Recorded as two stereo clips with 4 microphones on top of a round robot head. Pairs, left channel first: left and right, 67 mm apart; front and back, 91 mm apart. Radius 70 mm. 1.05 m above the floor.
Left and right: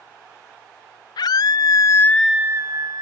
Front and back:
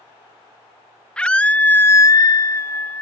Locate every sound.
1.2 s a scream: 75° left; by 3.0 s 75° right